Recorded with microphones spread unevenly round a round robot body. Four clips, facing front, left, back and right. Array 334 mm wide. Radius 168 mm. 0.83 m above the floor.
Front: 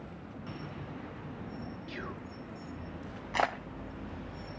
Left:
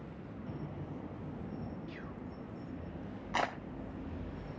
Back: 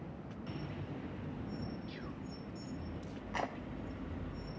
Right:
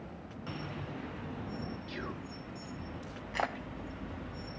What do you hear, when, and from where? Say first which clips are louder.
1.9 s whispering: right 4 dB, front 4 dB; 45° right
3.3 s a clap: even, front 9 dB; 65° left